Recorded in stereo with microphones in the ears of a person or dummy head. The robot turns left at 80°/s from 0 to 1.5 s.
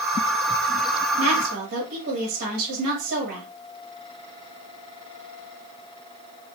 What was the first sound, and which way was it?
A woman speaking, 85° right.